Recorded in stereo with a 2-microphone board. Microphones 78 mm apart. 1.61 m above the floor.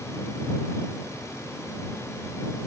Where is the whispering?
No whispering in this recording.